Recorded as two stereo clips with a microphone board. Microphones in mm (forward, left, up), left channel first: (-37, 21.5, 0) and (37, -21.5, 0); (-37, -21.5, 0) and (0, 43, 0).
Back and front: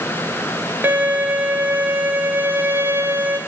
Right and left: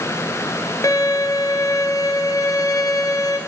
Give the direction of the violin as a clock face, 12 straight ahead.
3 o'clock.